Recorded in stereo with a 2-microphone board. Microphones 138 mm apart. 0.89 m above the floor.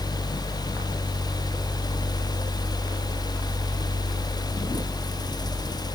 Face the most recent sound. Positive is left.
No sound to turn to.